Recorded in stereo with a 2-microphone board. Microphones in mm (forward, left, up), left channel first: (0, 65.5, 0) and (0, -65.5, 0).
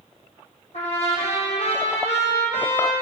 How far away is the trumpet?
About 4 m.